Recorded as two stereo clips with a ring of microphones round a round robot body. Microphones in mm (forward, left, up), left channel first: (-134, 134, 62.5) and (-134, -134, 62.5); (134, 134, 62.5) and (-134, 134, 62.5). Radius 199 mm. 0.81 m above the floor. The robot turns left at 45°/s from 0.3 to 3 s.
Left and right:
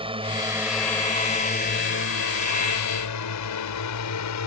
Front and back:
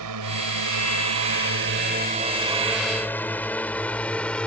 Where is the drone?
160° right; by 4.5 s 85° left.